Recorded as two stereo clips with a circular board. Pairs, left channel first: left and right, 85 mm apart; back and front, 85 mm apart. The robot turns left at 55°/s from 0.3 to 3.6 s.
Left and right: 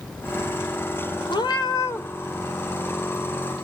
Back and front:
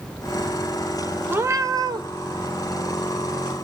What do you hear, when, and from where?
1.3 s a cat meowing: 65° left, 1.3 m; by 2.1 s 25° left, 1.3 m